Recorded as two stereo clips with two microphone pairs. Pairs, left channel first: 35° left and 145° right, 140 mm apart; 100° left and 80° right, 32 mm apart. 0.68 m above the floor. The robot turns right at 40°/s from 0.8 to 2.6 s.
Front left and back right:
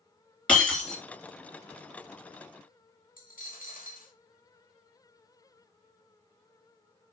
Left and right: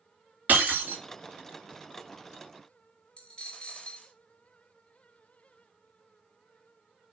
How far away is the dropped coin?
About 0.9 m.